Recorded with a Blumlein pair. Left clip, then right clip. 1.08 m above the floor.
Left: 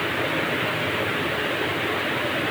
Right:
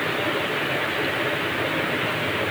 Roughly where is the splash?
I don't hear a splash.